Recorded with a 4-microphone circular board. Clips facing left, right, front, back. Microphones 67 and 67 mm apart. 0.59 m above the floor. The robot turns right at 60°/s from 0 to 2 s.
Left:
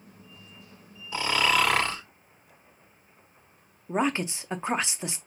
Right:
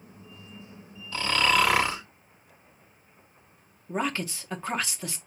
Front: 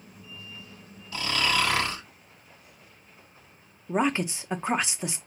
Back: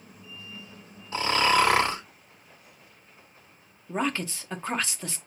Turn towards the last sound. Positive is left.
turn(degrees=50)